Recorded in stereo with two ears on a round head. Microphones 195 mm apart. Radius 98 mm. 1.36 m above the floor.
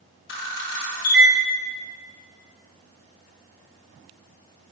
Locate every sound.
0.3 s a camera shutter: 55° left (ahead or behind), 2.5 m